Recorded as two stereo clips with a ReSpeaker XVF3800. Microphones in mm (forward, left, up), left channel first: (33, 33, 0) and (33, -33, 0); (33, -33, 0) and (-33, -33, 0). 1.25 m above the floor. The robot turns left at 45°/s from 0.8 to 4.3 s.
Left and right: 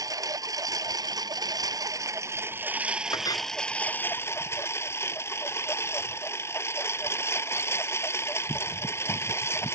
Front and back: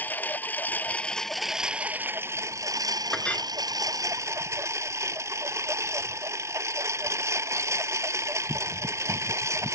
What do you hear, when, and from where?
0.0 s a lawn mower: 65° right; by 9.8 s 135° left
3.1 s a clink: 80° left; by 3.5 s 65° left